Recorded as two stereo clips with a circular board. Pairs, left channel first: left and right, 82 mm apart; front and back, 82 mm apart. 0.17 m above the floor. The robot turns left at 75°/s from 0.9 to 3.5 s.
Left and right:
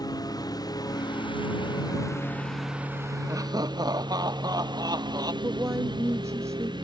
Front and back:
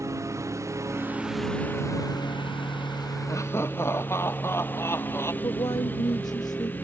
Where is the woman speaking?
35° right.